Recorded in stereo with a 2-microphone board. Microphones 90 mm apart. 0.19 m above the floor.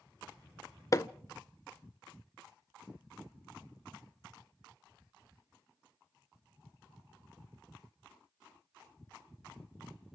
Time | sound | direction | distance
0.9 | hammering | 35° left (ahead or behind) | 0.5 m